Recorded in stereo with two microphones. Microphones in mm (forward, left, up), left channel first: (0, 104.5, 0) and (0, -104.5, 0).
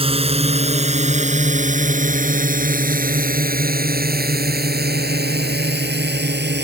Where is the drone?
25° right (ahead or behind); by 6.7 s 50° right (ahead or behind).